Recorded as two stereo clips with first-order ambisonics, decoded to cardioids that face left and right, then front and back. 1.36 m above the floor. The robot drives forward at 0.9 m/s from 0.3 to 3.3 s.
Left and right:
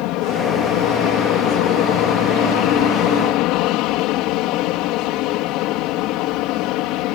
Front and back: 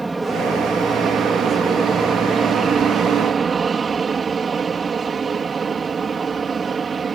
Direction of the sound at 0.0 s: 95° left.